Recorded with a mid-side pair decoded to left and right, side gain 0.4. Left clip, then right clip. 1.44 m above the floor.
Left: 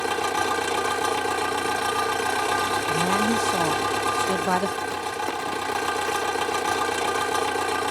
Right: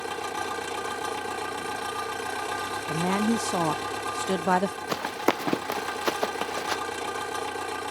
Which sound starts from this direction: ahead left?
An engine running, at 0.0 s.